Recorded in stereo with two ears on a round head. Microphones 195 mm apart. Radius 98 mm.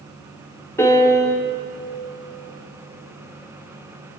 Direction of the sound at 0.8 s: 10° left (ahead or behind).